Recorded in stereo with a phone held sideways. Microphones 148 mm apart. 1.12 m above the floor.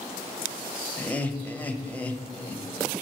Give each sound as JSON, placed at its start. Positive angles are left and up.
{"t": 1.0, "sound": "laughter", "side_deg": 10, "distance_m": 0.9}